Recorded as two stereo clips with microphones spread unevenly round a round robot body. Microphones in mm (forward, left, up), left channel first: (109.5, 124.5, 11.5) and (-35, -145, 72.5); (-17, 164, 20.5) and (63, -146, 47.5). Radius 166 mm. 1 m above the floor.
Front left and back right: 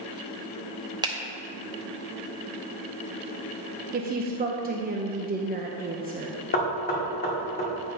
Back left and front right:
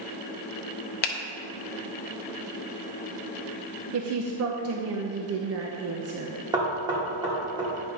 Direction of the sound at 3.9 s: 55° right.